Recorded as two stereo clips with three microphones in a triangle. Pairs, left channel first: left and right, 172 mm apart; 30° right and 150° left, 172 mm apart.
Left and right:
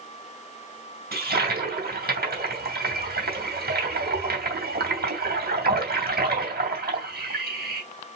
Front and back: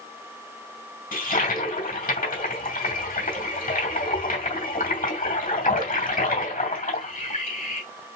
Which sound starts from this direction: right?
A toilet flushing, at 1.1 s.